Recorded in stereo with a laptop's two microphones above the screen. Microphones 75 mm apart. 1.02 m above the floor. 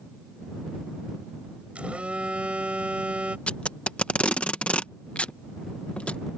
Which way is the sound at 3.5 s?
15° left (ahead or behind).